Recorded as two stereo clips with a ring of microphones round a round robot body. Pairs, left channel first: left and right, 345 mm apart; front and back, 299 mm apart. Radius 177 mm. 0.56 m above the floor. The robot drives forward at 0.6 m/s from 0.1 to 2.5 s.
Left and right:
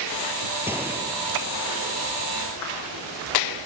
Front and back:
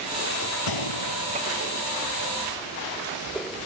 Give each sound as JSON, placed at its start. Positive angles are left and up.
{"t": 0.7, "sound": "a gunshot", "azimuth_deg": -5}